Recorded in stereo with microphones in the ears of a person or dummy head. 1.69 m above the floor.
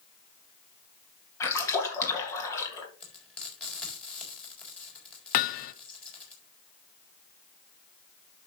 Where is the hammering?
50° left (ahead or behind), 0.7 m.